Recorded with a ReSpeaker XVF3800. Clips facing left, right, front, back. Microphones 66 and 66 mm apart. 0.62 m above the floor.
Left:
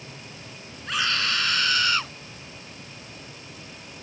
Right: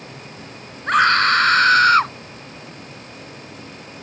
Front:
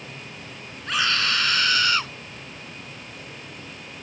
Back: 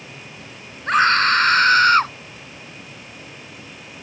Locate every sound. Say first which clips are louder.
0.9 s a scream: right 12 dB, back 9 dB; 130° right; by 2.1 s 135° right